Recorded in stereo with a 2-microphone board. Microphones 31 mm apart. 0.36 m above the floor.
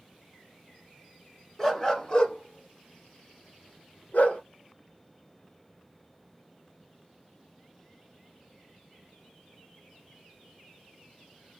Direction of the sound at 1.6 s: 15° left (ahead or behind).